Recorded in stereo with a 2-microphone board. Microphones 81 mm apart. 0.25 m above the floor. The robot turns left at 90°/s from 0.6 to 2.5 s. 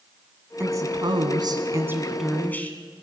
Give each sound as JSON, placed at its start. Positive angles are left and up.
{"t": 0.6, "sound": "a woman speaking", "azimuth_deg": -35, "distance_m": 1.9}